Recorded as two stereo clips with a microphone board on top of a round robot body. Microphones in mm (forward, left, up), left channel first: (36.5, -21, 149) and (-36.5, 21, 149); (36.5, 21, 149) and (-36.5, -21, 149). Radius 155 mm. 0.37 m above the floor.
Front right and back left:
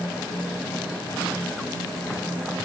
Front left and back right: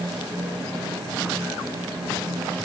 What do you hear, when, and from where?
Only background noise.